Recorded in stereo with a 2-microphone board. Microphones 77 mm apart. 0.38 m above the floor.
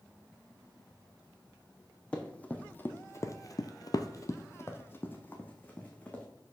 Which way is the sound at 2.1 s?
15° left (ahead or behind).